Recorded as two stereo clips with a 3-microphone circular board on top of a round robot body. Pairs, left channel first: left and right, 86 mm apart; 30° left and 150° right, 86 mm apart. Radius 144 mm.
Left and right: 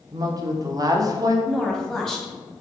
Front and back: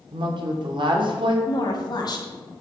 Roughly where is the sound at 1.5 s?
Ahead.